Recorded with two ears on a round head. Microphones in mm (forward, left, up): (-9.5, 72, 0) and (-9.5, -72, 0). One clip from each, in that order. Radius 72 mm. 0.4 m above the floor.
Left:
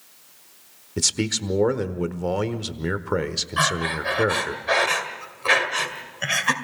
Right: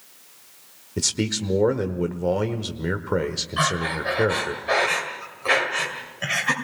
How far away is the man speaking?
About 1.0 m.